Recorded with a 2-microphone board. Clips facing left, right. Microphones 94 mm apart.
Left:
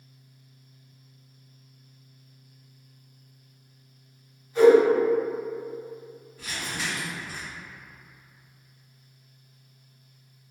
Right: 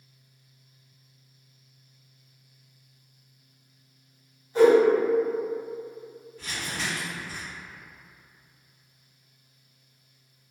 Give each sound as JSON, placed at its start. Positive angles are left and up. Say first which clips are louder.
{"t": 4.5, "sound": "a whoosh", "louder": "left 2 dB", "side_deg": -35, "distance_m": 1.4}
{"t": 6.4, "sound": "crumpling", "louder": "even", "side_deg": 10, "distance_m": 1.0}